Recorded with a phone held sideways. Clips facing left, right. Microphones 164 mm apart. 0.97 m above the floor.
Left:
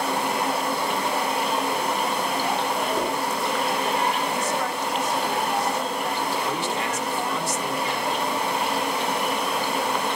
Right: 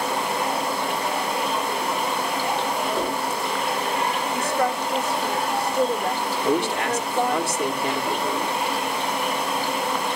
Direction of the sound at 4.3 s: 65° right (ahead or behind).